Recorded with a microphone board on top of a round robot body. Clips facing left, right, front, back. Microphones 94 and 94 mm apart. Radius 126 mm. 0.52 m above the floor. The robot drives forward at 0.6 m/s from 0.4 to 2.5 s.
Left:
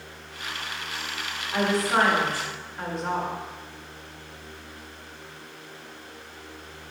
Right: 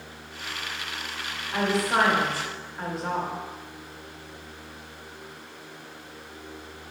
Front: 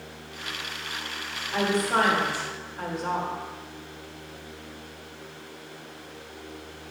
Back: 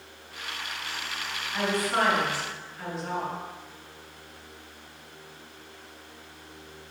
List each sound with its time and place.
1.5 s a woman speaking: straight ahead, 1.6 m